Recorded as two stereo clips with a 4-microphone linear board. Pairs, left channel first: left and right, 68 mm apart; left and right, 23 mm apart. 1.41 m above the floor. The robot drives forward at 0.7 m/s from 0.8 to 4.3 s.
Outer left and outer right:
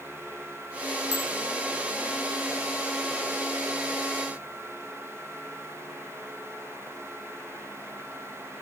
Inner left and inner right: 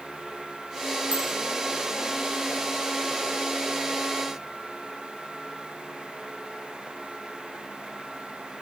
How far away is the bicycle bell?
About 5.5 m.